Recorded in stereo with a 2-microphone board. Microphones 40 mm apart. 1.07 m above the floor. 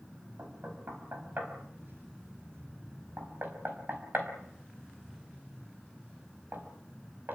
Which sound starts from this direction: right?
Knocking, at 0.4 s.